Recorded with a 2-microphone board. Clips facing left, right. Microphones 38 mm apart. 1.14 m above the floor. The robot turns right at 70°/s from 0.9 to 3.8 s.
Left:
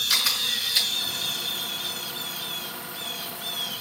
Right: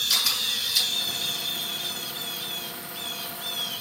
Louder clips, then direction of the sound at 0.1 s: Left 1 dB; 25° left (ahead or behind).